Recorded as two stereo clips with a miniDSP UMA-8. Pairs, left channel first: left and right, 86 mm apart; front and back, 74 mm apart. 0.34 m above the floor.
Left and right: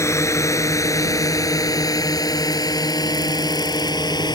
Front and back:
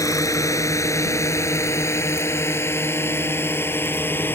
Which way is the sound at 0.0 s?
35° left.